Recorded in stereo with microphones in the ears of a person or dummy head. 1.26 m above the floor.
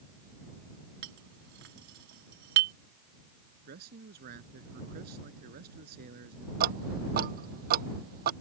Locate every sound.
1.0 s a clink: 60° right (ahead or behind)
3.7 s a man speaking: 60° right (ahead or behind)
6.6 s ticking: 55° right (ahead or behind)